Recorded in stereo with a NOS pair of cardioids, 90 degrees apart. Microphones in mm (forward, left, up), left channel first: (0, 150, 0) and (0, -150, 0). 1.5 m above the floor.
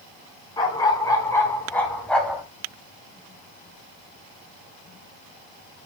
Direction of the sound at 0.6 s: 15° left.